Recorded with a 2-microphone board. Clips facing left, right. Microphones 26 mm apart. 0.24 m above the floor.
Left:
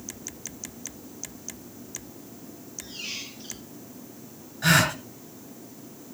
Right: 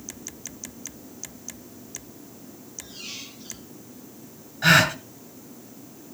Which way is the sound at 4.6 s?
15° right (ahead or behind).